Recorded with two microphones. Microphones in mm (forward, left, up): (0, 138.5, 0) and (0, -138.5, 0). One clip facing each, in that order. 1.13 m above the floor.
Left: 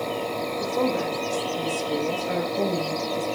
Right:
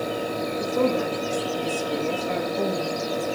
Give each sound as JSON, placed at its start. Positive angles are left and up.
{"t": 0.6, "sound": "a woman speaking", "side_deg": -30, "distance_m": 1.6}